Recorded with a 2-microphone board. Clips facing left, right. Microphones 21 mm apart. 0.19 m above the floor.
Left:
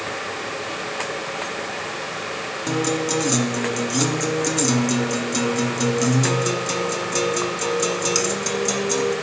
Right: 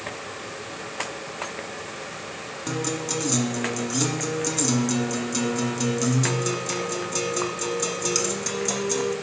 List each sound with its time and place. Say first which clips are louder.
2.7 s a guitar: left 6 dB; 15° left (ahead or behind), 1.5 m